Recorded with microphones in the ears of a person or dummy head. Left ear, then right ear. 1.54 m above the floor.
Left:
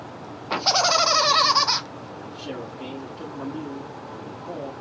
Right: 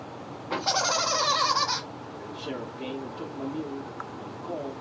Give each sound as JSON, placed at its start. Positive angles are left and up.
{"t": 0.5, "sound": "laughter", "side_deg": 25, "distance_m": 0.7}
{"t": 2.2, "sound": "a man speaking", "side_deg": 5, "distance_m": 0.7}